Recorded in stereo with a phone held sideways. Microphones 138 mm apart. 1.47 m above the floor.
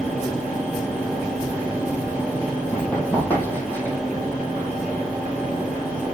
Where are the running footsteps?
10° left (ahead or behind), 2.5 m; by 4.0 s 15° left (ahead or behind), 3.5 m.